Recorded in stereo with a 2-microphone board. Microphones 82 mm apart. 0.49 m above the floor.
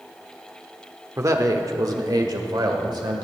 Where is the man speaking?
35° right (ahead or behind), 0.9 m; by 3.3 s 65° right (ahead or behind), 1.7 m.